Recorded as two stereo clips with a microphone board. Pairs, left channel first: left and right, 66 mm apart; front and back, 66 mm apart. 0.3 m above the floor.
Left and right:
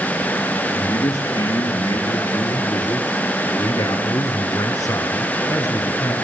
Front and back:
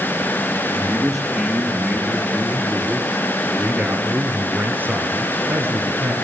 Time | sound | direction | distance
0.8 | a man speaking | 80° left | 6 m